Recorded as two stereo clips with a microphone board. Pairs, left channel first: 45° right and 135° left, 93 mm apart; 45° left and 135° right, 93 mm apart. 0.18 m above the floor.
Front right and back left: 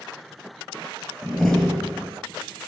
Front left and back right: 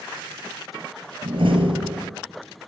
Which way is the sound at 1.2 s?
135° right.